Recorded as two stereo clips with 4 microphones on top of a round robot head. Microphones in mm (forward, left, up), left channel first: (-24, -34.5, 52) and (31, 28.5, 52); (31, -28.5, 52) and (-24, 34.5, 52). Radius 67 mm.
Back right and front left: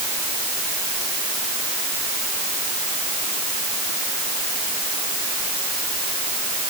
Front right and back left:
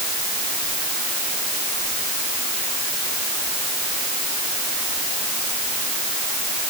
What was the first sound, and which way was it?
Only background noise.